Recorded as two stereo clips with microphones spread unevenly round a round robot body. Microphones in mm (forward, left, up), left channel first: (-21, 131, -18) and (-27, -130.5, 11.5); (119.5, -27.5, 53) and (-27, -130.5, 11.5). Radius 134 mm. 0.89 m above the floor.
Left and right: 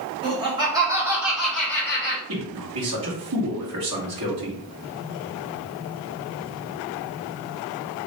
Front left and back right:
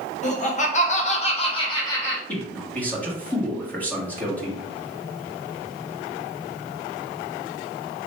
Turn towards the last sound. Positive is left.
turn(degrees=-50)